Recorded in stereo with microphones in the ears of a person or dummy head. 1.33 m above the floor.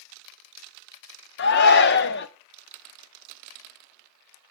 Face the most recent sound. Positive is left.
turn(degrees=55)  # may be behind; listen again after turning